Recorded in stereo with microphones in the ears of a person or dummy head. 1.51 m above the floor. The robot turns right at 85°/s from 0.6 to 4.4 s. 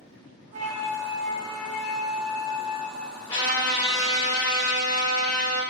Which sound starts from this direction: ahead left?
A trumpet, at 3.3 s.